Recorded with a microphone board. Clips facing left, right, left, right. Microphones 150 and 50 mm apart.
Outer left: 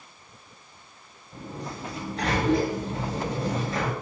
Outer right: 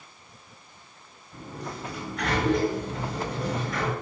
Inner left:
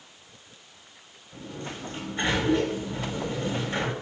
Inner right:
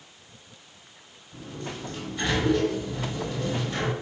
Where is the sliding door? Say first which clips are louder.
Outer left 1 dB, inner right 1 dB; 25° left (ahead or behind), 6 m.